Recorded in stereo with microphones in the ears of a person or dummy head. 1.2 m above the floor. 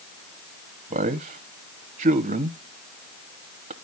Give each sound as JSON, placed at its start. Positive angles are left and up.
{"t": 0.9, "sound": "a man speaking", "side_deg": -30, "distance_m": 0.8}